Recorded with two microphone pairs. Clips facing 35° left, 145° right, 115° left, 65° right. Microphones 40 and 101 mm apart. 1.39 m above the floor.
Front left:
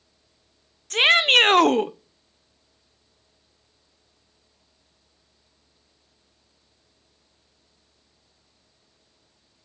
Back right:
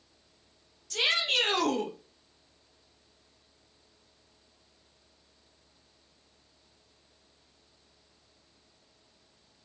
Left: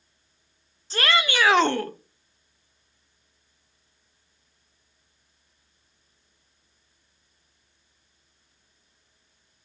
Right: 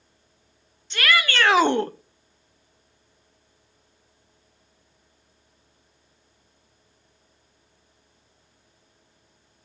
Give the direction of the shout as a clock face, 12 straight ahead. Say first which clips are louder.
Front left 11 dB, even; 10 o'clock.